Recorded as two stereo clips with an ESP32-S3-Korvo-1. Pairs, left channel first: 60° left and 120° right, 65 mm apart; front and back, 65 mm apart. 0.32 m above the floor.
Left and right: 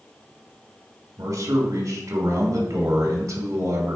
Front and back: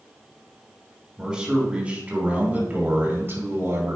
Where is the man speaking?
105° right, 3.5 m; by 4.0 s 140° right, 3 m.